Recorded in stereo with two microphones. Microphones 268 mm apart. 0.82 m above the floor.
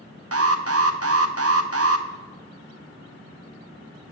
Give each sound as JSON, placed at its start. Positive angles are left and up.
{"t": 0.3, "sound": "an alarm", "side_deg": -65, "distance_m": 0.7}